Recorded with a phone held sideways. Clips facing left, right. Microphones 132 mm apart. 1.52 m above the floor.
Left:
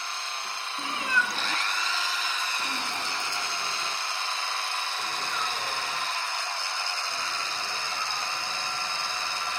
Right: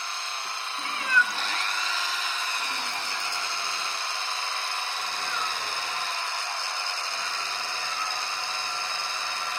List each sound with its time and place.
0.8 s a cat meowing: 15° left (ahead or behind), 1.1 m